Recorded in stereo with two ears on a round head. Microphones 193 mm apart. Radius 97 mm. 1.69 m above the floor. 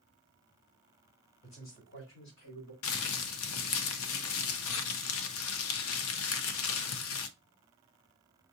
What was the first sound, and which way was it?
A man speaking, 70° left (ahead or behind).